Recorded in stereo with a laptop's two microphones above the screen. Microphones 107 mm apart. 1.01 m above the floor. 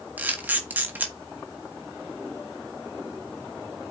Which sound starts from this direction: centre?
A camera shutter, at 0.2 s.